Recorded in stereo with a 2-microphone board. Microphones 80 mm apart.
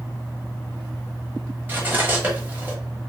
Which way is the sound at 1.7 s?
25° right (ahead or behind).